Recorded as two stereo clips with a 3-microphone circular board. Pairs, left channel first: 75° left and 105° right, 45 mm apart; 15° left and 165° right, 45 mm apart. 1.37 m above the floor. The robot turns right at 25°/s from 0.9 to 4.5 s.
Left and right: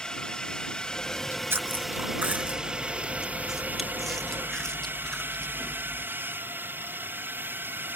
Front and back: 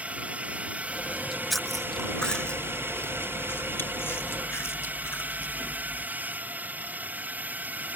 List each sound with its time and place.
0.0 s a drone: 145° left; by 8.0 s 125° right
1.2 s chewing: 85° right; by 6.1 s straight ahead